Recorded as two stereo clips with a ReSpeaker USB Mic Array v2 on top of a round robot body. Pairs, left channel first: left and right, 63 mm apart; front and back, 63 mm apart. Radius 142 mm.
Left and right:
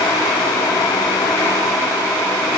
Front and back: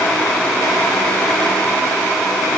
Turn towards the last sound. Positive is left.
No sound to turn to.